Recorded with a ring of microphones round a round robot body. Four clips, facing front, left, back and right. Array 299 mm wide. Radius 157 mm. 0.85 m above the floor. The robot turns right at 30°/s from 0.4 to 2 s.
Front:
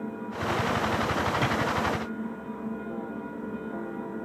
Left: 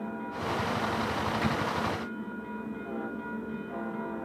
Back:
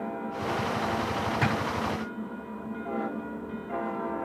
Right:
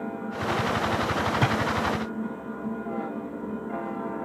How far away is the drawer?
About 2.5 m.